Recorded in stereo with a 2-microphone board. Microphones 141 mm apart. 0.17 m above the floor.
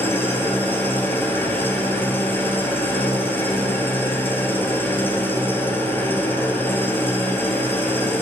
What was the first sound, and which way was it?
An engine running, 15° left (ahead or behind).